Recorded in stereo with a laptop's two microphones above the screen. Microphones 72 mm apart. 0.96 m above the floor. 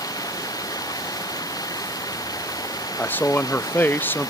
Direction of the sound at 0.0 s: 60° left (ahead or behind).